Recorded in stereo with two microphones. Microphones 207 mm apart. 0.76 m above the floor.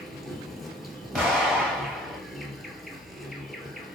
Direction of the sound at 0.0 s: Centre (ahead or behind).